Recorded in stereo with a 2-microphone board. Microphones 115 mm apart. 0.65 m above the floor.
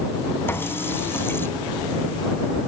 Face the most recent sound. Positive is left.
turn(degrees=20)  # may be behind; listen again after turning